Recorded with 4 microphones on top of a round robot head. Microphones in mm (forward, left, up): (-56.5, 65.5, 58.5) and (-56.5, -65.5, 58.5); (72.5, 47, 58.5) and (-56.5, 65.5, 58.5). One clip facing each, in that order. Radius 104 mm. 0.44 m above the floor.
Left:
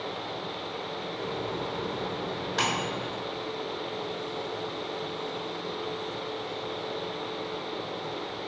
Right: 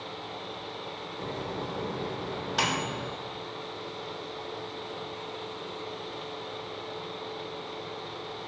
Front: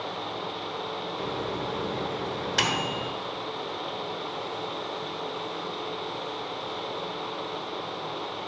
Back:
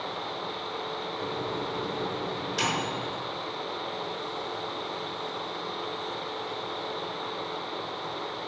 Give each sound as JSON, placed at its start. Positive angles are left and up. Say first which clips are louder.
{"t": 1.2, "sound": "a microwave", "louder": "left 1 dB, front 1 dB", "azimuth_deg": -10, "distance_m": 1.1}